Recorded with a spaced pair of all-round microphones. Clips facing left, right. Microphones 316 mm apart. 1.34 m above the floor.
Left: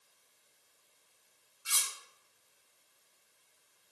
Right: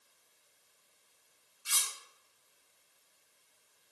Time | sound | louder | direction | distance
1.6 | cutlery clinking | even | 10° left (ahead or behind) | 0.7 m